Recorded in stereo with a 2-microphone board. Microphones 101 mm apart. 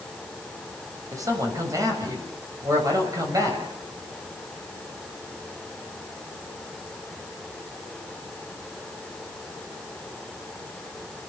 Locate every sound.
1.1 s a man speaking: 35° right (ahead or behind), 5.5 m